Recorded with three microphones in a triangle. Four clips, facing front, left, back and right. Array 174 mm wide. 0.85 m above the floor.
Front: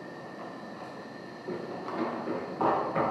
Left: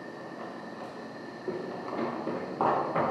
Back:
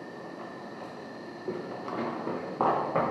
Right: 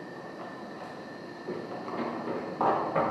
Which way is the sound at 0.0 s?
140° left.